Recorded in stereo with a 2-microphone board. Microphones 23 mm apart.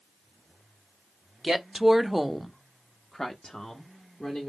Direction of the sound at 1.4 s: 20° right (ahead or behind).